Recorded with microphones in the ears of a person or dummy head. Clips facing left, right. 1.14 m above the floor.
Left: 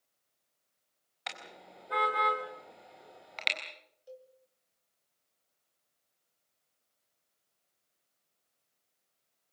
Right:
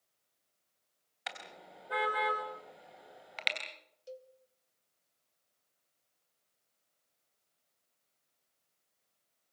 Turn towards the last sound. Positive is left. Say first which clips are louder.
# right 2 dB
turn(degrees=-30)  # may be behind; listen again after turning